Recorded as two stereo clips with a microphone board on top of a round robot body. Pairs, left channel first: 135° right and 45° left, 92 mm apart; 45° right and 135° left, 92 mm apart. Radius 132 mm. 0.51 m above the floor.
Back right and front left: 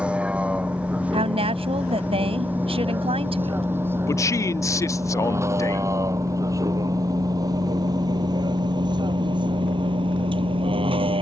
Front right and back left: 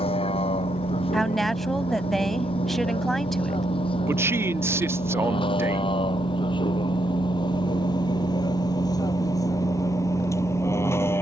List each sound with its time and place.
0.0 s a vehicle: 35° right; by 11.2 s 20° left
1.1 s a woman speaking: 45° left
4.1 s a man speaking: 175° right